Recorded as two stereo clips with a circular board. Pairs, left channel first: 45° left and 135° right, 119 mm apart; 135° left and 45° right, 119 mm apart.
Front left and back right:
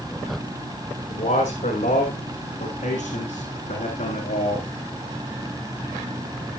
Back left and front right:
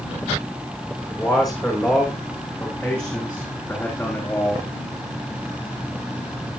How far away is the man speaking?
About 6.5 m.